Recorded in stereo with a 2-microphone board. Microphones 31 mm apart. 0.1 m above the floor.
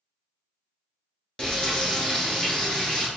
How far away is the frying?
About 1.2 m.